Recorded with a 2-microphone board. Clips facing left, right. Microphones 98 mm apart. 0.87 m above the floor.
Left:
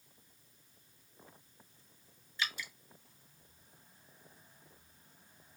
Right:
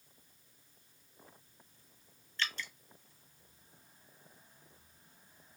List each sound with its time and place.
2.4 s dripping: 10° left (ahead or behind), 0.6 m